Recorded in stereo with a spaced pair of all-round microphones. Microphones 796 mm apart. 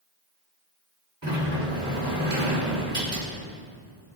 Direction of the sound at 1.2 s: 20° right (ahead or behind).